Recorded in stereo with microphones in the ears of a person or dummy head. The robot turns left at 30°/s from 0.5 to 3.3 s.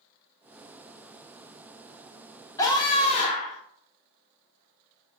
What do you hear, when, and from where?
2.6 s a scream: 25° left (ahead or behind), 0.9 m; by 3.6 s 40° left (ahead or behind), 0.9 m